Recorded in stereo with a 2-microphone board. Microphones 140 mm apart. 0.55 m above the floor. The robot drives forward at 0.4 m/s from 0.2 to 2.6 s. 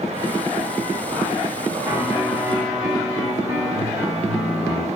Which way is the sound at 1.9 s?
15° right (ahead or behind).